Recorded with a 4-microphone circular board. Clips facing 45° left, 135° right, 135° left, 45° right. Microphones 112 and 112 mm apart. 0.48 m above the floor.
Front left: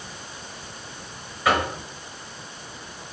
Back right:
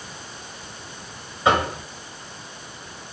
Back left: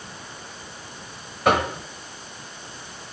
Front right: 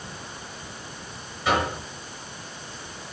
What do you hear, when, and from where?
1.4 s knocking: 160° left, 1.3 m